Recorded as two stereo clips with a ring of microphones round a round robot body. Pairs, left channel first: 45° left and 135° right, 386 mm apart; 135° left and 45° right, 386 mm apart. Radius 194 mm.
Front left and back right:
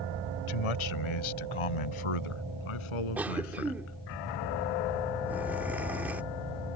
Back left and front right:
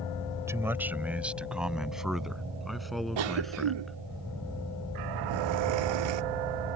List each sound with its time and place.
0.5 s a man speaking: 40° left; by 4.0 s 45° left
3.2 s a cough: 50° right